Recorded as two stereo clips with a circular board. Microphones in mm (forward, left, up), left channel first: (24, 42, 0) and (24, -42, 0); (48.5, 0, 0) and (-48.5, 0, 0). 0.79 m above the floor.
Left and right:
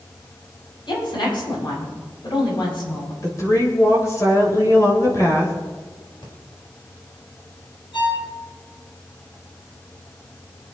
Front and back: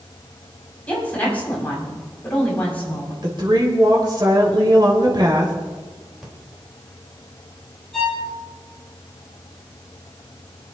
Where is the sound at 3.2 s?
140° left, 3 m.